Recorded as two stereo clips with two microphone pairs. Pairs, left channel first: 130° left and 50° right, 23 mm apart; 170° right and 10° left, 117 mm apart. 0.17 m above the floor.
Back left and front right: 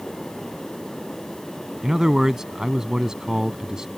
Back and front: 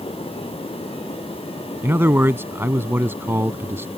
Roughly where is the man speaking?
Ahead right.